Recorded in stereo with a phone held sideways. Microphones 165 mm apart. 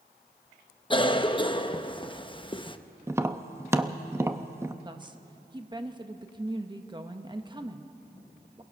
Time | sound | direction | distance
0.9 | a cough | 30° left (ahead or behind) | 0.8 m
3.1 | tapping | 15° right (ahead or behind) | 0.7 m
4.8 | a woman speaking | 25° right (ahead or behind) | 1.2 m